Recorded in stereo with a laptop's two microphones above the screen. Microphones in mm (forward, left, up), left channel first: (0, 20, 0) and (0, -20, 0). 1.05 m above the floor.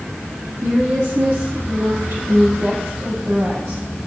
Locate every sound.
0.6 s a woman speaking: 80° right, 2.0 m